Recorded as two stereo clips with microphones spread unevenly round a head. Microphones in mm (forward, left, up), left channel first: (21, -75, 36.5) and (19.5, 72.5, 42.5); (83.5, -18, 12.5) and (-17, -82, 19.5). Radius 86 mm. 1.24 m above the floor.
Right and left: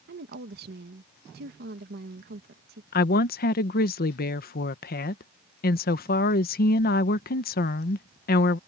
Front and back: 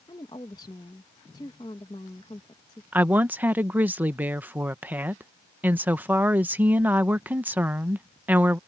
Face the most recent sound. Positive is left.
turn(degrees=-70)